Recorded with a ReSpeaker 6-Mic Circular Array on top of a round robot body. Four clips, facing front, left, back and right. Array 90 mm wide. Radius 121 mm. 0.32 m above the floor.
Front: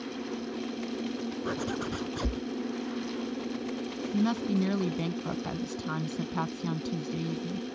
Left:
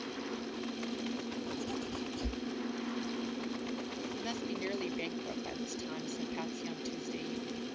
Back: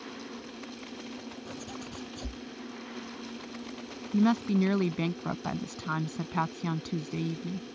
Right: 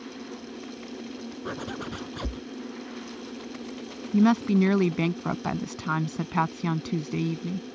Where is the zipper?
45° right.